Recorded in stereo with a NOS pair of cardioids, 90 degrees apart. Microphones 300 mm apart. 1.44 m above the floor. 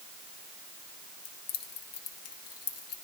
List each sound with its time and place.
1.2 s keys jangling: 60° left, 1.2 m; by 2.9 s 50° left, 2.0 m